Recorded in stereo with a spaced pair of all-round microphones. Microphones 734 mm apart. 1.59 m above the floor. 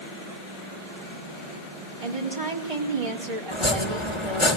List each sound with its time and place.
2.0 s a woman speaking: 45° right (ahead or behind), 4 m
3.5 s chopping: 40° left (ahead or behind), 4 m